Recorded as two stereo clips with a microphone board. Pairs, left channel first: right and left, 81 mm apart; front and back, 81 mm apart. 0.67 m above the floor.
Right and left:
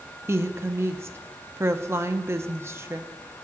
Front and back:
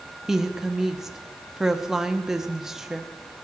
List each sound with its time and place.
0.3 s a woman speaking: 100° left, 0.6 m